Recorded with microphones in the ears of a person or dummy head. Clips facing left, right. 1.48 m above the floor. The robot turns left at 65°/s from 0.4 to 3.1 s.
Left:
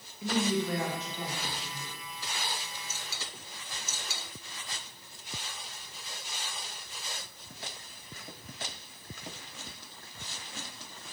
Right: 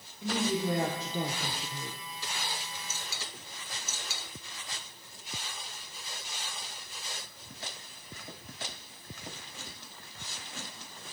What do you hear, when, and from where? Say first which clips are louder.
0.2 s a woman speaking: left 1 dB; 5° left, 0.9 m; by 2.0 s 100° right, 0.9 m